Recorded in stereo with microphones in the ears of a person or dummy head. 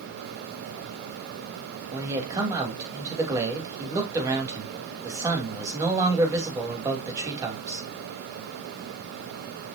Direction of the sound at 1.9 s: 15° right (ahead or behind).